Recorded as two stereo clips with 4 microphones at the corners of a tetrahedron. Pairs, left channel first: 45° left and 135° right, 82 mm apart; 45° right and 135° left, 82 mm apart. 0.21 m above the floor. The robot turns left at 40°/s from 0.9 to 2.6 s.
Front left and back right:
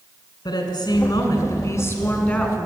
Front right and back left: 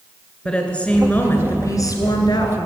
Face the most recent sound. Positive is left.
turn(degrees=-40)